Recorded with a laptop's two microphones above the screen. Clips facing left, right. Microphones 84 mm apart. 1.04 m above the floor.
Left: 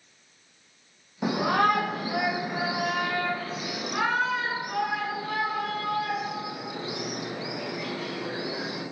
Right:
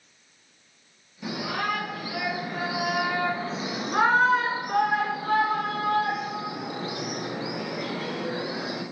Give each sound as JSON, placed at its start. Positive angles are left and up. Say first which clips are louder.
{"t": 1.2, "sound": "a shout", "louder": "left 7 dB", "side_deg": 60, "distance_m": 1.2}